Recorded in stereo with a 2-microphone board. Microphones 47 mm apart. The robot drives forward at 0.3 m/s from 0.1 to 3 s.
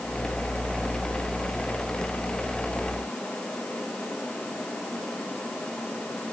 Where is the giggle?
I don't hear a giggle.